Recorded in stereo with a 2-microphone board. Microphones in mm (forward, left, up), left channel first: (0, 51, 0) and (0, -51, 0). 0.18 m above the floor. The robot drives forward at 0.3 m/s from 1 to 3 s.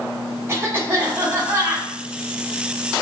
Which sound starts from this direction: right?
A cough, at 0.5 s.